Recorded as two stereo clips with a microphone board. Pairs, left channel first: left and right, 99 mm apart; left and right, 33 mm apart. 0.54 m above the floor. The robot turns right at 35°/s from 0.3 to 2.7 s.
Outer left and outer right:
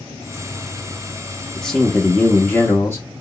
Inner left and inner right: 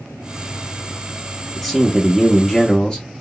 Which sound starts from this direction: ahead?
A man speaking, at 1.6 s.